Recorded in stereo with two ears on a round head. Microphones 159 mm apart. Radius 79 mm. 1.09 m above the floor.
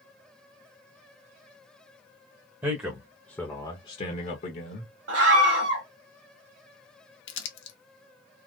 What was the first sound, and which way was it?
A man speaking, 20° right (ahead or behind).